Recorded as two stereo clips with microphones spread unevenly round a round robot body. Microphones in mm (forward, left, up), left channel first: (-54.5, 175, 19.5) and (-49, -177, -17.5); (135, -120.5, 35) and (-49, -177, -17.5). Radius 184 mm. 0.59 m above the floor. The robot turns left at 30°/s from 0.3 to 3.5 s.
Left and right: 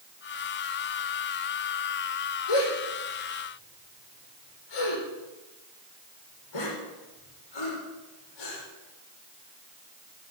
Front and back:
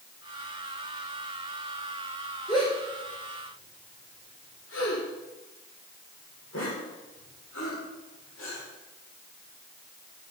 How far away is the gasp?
About 7 m.